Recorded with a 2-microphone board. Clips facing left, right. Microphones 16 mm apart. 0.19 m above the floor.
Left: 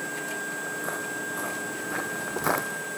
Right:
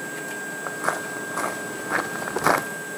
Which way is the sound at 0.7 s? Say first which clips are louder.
Right 4 dB; 55° right (ahead or behind).